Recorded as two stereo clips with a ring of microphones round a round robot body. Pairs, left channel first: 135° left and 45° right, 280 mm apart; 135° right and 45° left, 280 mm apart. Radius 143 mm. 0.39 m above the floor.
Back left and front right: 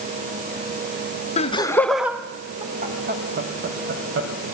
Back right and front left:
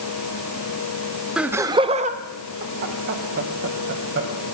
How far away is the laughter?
About 1.0 m.